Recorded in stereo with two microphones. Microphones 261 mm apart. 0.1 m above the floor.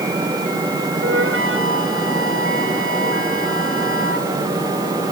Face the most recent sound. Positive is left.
turn(degrees=-50)  # may be behind; listen again after turning